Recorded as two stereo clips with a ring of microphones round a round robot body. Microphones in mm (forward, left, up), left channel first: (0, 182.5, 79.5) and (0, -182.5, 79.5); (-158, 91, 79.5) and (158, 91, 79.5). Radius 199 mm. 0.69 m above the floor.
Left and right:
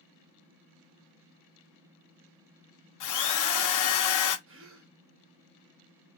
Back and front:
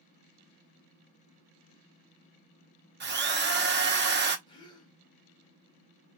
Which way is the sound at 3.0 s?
55° left.